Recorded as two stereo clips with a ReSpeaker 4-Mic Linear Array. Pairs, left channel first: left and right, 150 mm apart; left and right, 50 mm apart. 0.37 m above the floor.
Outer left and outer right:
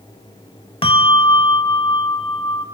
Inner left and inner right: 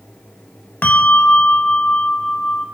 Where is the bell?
40° left (ahead or behind), 0.6 m.